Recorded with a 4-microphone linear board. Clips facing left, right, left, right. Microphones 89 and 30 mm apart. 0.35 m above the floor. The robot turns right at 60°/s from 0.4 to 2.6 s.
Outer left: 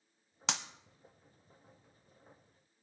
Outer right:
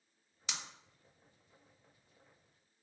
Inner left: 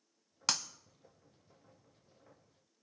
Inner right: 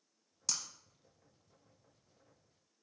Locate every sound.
0.5 s breaking glass: 75° left (ahead or behind), 0.7 m